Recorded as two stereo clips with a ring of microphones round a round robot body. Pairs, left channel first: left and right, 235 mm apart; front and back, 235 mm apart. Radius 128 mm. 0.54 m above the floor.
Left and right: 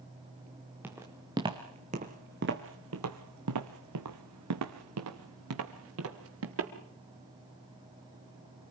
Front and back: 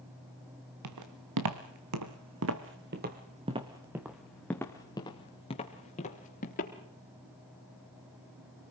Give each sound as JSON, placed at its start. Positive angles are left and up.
{"t": 0.8, "sound": "footsteps", "azimuth_deg": -175, "distance_m": 3.0}